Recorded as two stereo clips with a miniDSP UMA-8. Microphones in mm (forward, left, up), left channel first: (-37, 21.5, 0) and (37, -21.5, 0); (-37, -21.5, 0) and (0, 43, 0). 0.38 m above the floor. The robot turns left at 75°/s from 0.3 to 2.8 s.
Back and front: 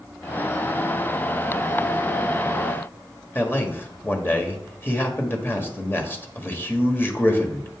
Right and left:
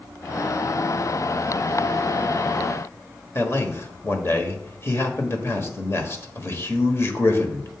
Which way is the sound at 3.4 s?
155° right.